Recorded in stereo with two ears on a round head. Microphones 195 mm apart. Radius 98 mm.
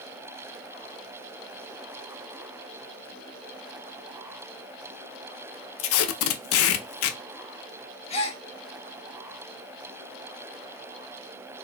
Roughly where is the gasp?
Left.